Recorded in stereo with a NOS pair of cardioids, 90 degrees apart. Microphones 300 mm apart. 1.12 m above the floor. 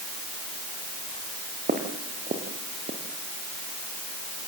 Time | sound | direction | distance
1.7 | footsteps | 30° right | 5 m